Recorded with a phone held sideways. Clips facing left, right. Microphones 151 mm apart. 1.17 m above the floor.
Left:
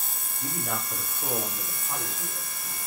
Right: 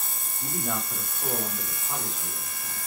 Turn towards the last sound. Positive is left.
turn(degrees=5)  # may be behind; listen again after turning